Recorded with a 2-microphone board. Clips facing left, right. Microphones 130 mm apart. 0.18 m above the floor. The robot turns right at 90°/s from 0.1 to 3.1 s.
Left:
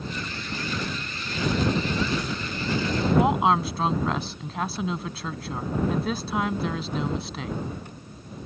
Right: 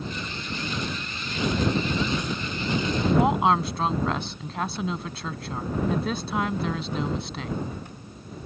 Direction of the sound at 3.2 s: Centre (ahead or behind).